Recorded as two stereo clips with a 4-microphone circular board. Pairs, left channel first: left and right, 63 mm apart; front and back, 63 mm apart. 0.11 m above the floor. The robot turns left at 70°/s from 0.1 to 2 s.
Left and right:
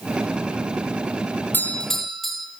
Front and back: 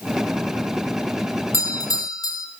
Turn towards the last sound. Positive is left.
turn(degrees=0)